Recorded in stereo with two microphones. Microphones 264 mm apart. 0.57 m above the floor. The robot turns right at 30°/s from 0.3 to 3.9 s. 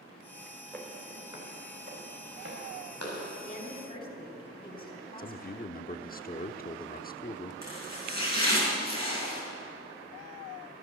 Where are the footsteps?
5° left (ahead or behind), 4 m; by 3.2 s 70° right (ahead or behind), 7.5 m.